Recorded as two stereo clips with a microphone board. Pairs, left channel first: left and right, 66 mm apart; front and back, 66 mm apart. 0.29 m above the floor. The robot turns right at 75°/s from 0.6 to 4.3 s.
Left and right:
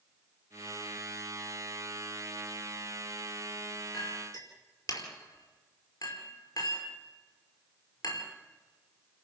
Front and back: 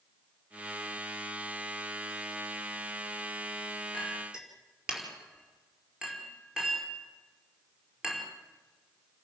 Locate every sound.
3.9 s a clink: 75° left, 5 m; by 8.3 s 100° left, 5 m